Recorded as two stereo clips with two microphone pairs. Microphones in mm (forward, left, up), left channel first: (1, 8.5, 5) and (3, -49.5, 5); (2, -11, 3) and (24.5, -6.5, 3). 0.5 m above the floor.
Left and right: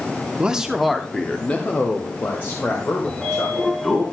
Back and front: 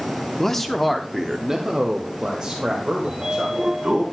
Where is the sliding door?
20° left, 2.5 m.